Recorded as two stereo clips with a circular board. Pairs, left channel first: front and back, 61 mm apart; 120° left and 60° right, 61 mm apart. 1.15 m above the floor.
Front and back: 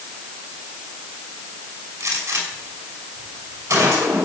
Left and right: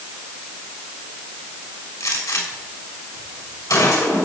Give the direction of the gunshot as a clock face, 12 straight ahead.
7 o'clock.